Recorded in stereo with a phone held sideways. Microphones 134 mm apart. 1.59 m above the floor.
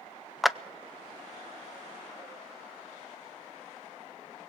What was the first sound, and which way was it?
A clap, centre (ahead or behind).